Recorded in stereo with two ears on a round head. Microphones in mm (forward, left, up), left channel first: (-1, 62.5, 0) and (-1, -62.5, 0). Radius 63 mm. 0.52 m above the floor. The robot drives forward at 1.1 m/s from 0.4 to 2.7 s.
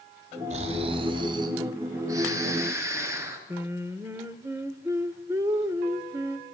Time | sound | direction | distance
0.5 | snoring | 50° right (ahead or behind) | 1.7 m
3.5 | singing | 20° right (ahead or behind) | 1.5 m